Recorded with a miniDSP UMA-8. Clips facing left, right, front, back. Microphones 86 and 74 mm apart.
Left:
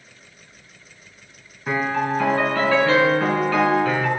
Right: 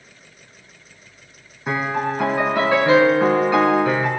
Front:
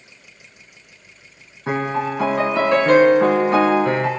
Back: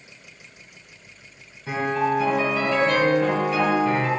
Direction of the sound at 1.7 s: 20° right.